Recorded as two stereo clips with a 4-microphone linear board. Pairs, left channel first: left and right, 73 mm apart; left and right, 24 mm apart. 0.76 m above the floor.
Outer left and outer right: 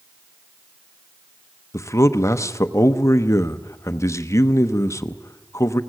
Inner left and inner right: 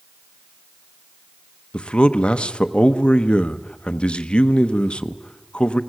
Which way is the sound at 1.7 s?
45° left (ahead or behind).